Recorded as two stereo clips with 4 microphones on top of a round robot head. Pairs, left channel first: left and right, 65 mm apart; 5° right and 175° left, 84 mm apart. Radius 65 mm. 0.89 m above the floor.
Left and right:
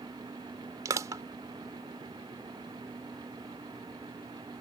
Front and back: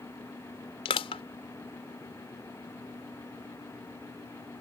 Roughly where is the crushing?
Ahead right.